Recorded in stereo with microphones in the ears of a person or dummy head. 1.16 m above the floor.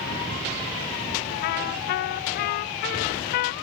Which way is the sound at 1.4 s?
45° left (ahead or behind).